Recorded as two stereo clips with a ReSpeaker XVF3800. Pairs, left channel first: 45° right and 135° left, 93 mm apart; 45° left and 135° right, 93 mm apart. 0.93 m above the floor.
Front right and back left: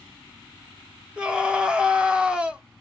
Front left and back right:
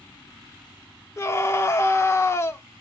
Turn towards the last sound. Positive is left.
turn(degrees=65)